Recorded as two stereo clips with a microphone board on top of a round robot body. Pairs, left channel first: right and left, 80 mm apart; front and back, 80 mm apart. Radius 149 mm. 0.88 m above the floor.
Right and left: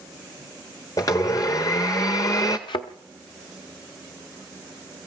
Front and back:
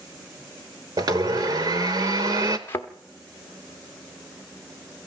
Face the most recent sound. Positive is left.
turn(degrees=-65)